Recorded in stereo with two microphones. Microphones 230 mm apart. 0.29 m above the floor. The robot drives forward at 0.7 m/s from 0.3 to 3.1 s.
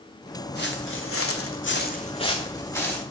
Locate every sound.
0.6 s footsteps: 45° left (ahead or behind), 1.4 m; by 3.0 s 5° left (ahead or behind), 2 m